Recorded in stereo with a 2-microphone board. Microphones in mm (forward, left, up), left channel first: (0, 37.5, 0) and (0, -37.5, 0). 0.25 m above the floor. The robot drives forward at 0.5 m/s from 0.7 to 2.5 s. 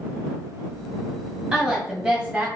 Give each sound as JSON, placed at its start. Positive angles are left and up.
{"t": 1.5, "sound": "a woman speaking", "side_deg": -10, "distance_m": 1.4}